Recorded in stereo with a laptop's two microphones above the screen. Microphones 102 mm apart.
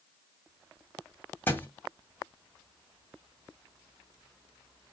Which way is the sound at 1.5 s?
20° left (ahead or behind).